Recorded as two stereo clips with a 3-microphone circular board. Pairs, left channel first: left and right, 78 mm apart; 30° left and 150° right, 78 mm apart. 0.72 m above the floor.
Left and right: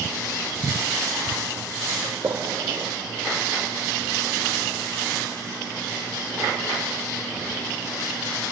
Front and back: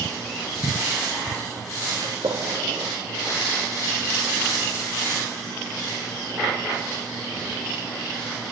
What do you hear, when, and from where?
2.0 s a gunshot: 150° right, 3.5 m